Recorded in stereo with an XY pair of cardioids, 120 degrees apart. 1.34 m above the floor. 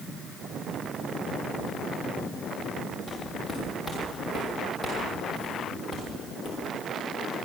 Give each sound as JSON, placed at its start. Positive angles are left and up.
{"t": 3.1, "sound": "footsteps", "azimuth_deg": 20, "distance_m": 7.0}